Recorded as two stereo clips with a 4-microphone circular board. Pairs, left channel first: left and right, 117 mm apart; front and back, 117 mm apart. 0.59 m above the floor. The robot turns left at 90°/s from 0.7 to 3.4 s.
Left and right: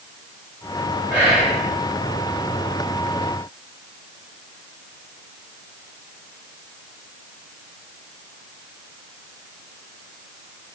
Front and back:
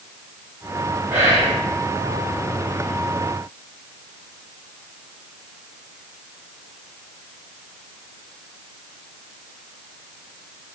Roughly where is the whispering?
Behind right.